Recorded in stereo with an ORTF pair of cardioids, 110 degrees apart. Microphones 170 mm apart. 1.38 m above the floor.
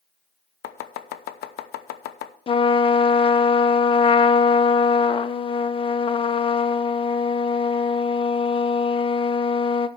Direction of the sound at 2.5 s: 30° left.